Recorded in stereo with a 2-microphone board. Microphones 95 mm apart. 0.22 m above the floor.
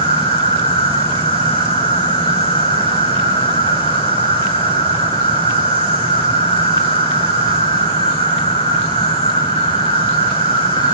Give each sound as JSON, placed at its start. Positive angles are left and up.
{"t": 0.0, "sound": "an insect", "side_deg": 85, "distance_m": 9.5}